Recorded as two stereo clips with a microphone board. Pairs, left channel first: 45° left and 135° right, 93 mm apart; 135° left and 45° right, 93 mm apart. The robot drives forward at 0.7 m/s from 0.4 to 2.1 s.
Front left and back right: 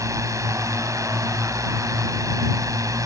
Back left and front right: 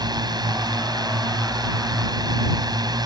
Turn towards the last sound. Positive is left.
turn(degrees=-85)